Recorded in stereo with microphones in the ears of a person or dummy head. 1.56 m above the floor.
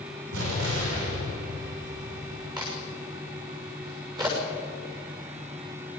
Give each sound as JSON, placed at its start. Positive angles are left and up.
{"t": 0.3, "sound": "an explosion", "side_deg": -75, "distance_m": 5.0}
{"t": 2.6, "sound": "a crack", "side_deg": -20, "distance_m": 7.5}